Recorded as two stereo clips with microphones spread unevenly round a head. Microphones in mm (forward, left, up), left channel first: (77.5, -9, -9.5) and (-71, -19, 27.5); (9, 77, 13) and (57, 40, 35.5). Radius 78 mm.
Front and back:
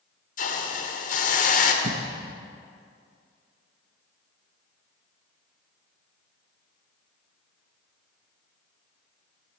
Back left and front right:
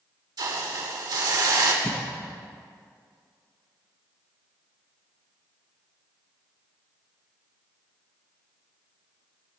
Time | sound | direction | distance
0.4 | a hiss | 30° right | 1.9 m
1.8 | a cough | 145° right | 1.4 m